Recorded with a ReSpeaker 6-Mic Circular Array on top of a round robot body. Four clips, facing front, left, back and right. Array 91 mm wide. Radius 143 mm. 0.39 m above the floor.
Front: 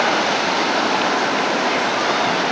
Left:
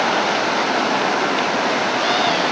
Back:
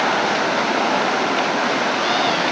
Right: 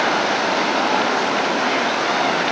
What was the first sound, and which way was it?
Only background noise.